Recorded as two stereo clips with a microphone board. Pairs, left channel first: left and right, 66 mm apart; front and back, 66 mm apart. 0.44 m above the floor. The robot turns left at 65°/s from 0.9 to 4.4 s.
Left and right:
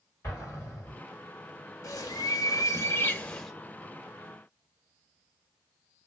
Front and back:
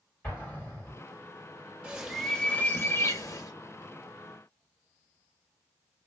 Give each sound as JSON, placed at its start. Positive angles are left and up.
{"t": 0.2, "sound": "an explosion", "azimuth_deg": 55, "distance_m": 2.0}
{"t": 1.8, "sound": "a bird", "azimuth_deg": 110, "distance_m": 0.6}